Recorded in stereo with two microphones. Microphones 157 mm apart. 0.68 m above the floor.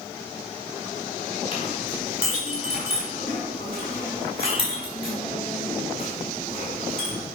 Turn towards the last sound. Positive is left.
turn(degrees=35)  # may be behind; listen again after turning